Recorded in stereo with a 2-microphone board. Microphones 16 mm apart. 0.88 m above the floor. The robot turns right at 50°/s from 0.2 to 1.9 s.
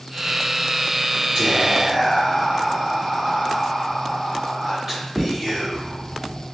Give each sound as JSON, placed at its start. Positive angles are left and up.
{"t": 1.4, "sound": "whispering", "side_deg": -40, "distance_m": 1.6}